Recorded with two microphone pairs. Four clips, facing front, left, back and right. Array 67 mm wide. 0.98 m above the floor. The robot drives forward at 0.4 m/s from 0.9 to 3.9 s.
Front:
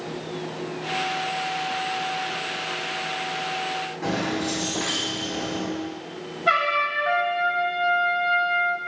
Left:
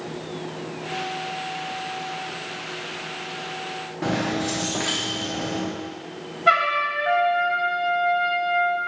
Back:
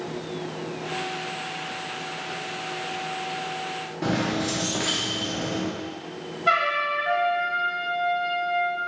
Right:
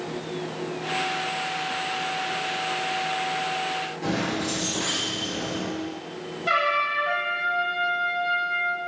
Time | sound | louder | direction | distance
4.0 | keys jangling | left 4 dB, back 2 dB | 125° left | 1.1 m
6.5 | a trumpet | left 3 dB, front 1 dB | 85° left | 1.2 m